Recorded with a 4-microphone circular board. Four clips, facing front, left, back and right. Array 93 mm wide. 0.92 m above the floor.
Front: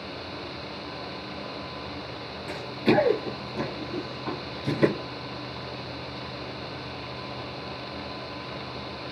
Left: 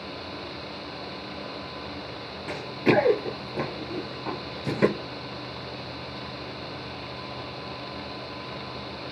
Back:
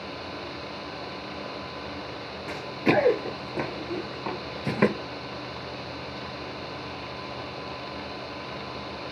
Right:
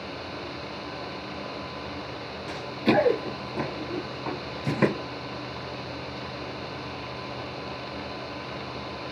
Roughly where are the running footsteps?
Left.